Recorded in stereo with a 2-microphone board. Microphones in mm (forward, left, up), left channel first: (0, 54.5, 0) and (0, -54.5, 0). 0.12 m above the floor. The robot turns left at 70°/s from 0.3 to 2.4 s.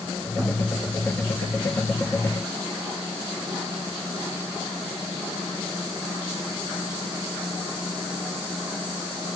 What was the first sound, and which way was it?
Only background noise.